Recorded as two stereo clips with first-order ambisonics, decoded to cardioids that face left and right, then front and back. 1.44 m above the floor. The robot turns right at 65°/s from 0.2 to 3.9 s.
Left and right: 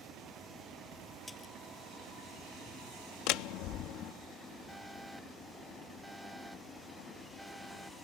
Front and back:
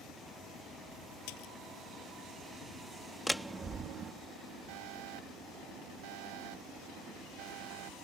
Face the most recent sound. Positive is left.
turn(degrees=180)